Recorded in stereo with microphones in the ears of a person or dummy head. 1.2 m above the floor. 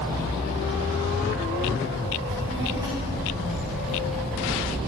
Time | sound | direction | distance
2.3 | a child speaking | 30° right (ahead or behind) | 1.8 m